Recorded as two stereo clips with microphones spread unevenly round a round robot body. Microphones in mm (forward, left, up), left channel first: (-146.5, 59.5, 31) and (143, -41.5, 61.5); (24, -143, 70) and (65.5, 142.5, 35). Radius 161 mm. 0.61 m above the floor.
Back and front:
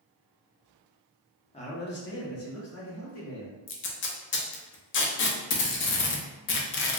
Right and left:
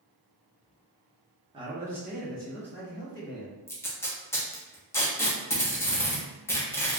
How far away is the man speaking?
About 0.8 m.